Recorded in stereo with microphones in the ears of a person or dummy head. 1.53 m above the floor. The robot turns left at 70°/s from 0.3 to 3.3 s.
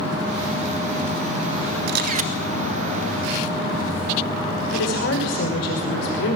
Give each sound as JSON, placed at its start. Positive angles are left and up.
{"t": 1.9, "sound": "a camera shutter", "azimuth_deg": -115, "distance_m": 1.1}
{"t": 4.7, "sound": "a woman speaking", "side_deg": 70, "distance_m": 5.0}